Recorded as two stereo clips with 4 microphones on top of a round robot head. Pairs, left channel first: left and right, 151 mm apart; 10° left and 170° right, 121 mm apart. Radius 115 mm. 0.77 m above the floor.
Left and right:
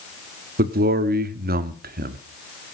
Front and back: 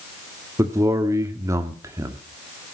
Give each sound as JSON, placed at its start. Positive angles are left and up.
{"t": 0.6, "sound": "a man speaking", "azimuth_deg": -105, "distance_m": 1.5}